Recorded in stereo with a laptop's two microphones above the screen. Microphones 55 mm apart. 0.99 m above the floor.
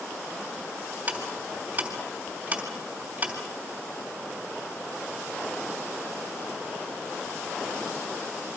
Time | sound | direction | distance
1.1 | ticking | 30° right (ahead or behind) | 3 m